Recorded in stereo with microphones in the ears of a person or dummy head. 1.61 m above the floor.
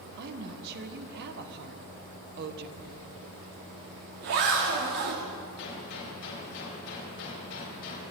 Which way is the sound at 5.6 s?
65° left (ahead or behind).